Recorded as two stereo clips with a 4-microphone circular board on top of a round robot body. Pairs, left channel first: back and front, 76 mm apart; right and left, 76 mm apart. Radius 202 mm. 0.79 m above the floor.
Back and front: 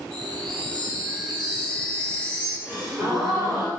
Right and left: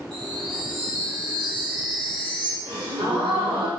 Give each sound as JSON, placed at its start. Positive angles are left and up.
{"t": 0.1, "sound": "a chime", "azimuth_deg": 100, "distance_m": 1.4}
{"t": 2.6, "sound": "a gasp", "azimuth_deg": 90, "distance_m": 3.0}